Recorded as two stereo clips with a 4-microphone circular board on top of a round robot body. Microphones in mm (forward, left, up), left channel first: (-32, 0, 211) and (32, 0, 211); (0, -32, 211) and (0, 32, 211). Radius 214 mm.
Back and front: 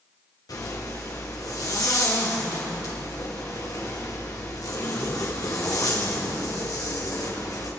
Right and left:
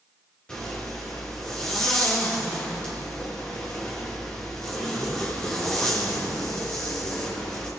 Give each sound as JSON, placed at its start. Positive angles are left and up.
{"t": 0.5, "sound": "a zipper", "azimuth_deg": -170, "distance_m": 6.5}